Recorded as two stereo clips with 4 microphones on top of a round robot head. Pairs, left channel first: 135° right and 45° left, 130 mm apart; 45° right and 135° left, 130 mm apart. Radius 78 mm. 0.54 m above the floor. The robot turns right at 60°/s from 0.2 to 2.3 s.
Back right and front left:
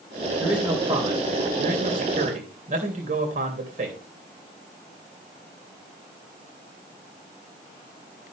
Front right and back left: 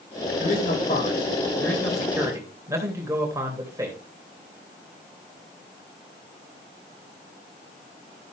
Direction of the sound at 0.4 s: 45° right.